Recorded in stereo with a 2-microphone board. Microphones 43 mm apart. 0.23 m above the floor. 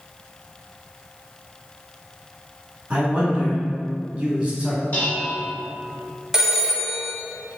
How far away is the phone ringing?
About 0.6 m.